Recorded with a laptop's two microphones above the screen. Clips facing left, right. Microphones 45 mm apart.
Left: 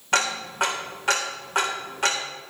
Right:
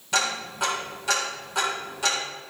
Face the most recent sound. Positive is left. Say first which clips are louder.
# left 3 dB
turn(degrees=50)  # may be behind; listen again after turning